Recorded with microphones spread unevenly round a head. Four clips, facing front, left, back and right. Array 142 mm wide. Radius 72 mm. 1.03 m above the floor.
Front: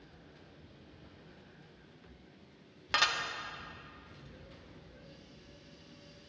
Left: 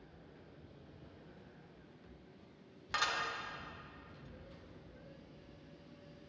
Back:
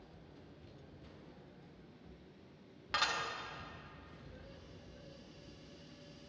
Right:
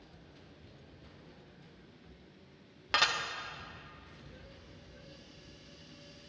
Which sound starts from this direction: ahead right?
Dishes clattering, at 2.9 s.